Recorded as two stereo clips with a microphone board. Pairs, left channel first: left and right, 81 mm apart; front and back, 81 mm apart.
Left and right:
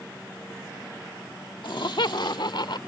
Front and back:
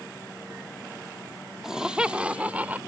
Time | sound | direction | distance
1.6 | laughter | 95° left | ?